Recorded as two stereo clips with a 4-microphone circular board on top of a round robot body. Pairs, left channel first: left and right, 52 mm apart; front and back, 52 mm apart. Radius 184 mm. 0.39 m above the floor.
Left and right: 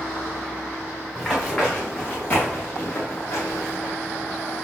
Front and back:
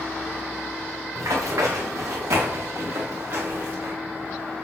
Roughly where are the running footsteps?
Behind.